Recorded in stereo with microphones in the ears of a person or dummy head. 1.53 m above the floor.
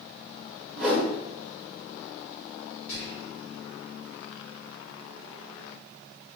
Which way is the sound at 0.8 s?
Centre (ahead or behind).